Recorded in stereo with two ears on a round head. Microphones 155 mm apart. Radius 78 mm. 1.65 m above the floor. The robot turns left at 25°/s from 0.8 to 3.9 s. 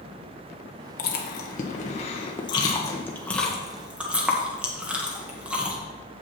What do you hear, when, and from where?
1.0 s chewing: 60° left (ahead or behind), 1.3 m; by 5.8 s 5° right (ahead or behind), 1.3 m